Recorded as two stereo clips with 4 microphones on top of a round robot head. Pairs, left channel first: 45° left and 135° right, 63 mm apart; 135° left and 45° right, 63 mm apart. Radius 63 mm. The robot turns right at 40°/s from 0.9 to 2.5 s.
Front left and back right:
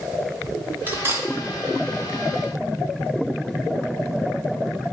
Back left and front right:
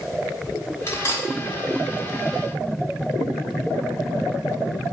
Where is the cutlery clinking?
170° left, 0.6 m; by 1.3 s 175° right, 0.6 m.